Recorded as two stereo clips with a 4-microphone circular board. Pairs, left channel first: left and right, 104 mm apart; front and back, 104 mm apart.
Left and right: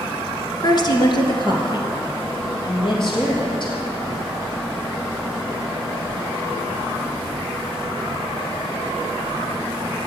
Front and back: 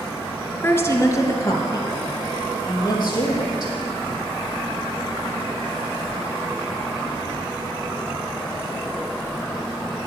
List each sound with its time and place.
0.6 s a woman speaking: 65° left, 1.6 m; by 3.7 s 50° left, 5 m